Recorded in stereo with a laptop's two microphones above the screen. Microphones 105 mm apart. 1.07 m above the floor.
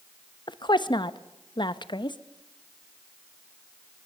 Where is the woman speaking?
45° left (ahead or behind), 1.0 m.